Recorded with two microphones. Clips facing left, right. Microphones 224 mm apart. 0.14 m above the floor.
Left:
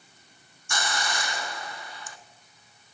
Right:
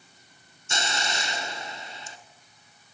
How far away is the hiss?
About 0.9 m.